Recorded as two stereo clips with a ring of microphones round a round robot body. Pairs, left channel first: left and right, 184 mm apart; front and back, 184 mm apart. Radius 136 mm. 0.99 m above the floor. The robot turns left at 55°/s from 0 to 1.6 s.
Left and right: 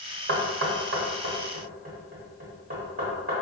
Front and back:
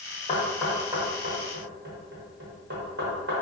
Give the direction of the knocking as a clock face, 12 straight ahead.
2 o'clock.